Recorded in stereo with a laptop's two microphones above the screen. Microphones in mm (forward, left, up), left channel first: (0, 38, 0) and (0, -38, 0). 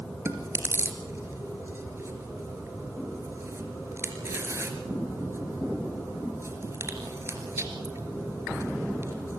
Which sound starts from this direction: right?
Chewing, at 0.2 s.